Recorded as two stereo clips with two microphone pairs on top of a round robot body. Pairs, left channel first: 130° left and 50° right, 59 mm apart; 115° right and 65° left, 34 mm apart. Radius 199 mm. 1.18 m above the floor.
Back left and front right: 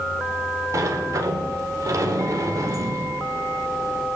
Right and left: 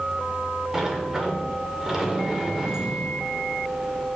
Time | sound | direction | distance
0.7 | a sliding door | 25° right | 0.7 m